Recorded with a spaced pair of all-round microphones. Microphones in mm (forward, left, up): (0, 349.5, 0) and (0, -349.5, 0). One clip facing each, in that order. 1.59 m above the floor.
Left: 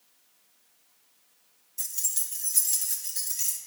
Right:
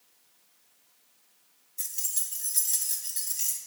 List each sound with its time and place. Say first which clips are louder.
1.8 s keys jangling: left 1 dB; 45° left (ahead or behind), 0.9 m; by 3.6 s 50° left (ahead or behind), 1.7 m